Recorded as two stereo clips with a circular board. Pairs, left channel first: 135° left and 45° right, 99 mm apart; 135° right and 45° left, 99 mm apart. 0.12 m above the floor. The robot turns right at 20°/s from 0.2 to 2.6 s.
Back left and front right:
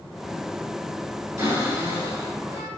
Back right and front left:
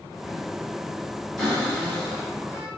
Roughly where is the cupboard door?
Ahead right.